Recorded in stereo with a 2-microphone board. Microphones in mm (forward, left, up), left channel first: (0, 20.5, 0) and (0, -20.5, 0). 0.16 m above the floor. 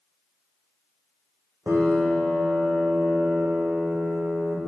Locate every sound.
1.7 s a piano: 75° right (ahead or behind), 2 m